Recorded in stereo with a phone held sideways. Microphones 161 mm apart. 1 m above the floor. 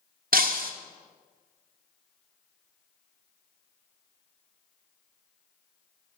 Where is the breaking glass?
65° right (ahead or behind), 1.0 m.